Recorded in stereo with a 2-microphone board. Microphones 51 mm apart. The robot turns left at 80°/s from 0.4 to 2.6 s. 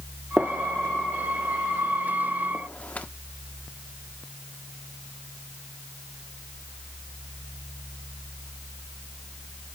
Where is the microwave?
I don't hear a microwave.